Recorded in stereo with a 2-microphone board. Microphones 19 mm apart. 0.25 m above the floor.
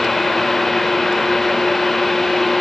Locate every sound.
Only background noise.